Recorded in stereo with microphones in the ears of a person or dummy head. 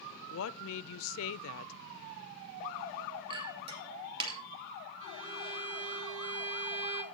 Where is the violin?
70° right (ahead or behind), 1.4 m.